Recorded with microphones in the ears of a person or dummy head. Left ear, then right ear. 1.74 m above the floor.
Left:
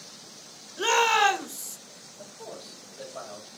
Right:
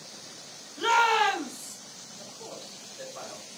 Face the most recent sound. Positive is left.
turn(degrees=60)  # may be behind; listen again after turning